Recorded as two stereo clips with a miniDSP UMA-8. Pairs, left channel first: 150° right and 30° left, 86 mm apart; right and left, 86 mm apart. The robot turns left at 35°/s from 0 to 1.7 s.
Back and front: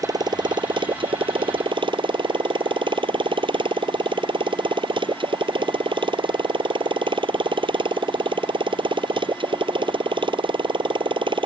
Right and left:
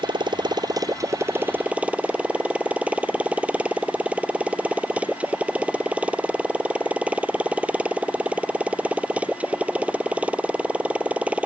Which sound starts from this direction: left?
A motorcycle, at 0.0 s.